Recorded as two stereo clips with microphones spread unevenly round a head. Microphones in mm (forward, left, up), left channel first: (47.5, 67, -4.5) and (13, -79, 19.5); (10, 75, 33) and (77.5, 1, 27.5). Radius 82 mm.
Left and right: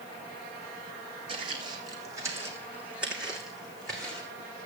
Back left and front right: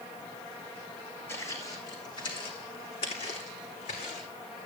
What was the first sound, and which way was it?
Footsteps, 155° right.